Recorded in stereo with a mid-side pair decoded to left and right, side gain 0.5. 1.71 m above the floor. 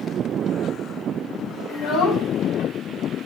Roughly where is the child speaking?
Ahead left.